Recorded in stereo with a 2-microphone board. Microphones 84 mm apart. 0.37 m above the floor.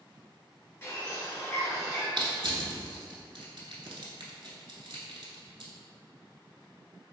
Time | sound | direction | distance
0.8 | a bird | 35° left (ahead or behind) | 1.9 m
2.2 | crushing | 65° right (ahead or behind) | 0.8 m